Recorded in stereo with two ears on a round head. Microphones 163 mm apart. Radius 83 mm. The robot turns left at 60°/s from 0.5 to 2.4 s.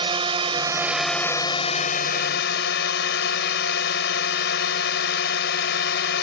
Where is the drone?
150° right; by 6.2 s 100° left.